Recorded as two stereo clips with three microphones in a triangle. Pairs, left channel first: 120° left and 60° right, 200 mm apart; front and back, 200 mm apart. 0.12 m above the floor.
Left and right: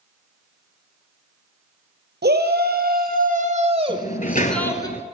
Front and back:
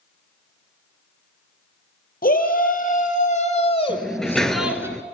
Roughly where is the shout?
Ahead right.